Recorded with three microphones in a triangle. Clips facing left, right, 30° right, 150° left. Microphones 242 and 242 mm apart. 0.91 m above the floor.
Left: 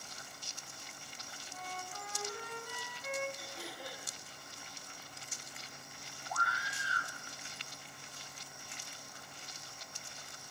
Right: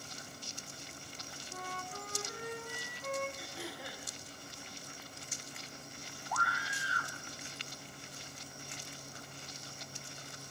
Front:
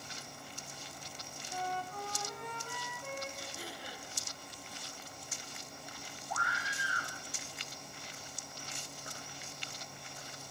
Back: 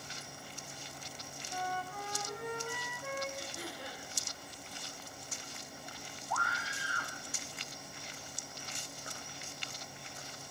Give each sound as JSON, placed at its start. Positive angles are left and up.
{"t": 1.5, "sound": "a flute", "azimuth_deg": -130, "distance_m": 3.5}
{"t": 3.4, "sound": "throat clearing", "azimuth_deg": 180, "distance_m": 8.5}
{"t": 6.3, "sound": "a scream", "azimuth_deg": 45, "distance_m": 6.0}